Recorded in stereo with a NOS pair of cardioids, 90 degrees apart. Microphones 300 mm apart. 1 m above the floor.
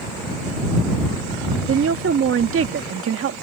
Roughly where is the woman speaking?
Ahead right.